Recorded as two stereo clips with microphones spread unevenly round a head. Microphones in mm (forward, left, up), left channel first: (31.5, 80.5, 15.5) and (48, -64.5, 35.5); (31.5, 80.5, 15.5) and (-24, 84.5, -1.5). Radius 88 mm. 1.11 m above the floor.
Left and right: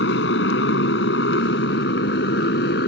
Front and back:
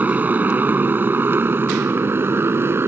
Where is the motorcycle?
115° left; by 2.9 s 130° left.